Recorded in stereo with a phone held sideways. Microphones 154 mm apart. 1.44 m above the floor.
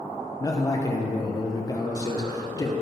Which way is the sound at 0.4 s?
25° left (ahead or behind).